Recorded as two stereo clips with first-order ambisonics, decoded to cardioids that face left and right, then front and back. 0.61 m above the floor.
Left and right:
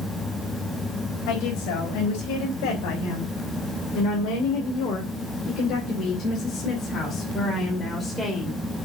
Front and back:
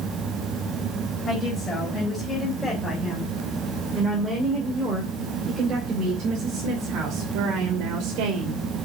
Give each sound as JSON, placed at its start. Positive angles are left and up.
{"t": 1.3, "sound": "a woman speaking", "azimuth_deg": 75, "distance_m": 3.5}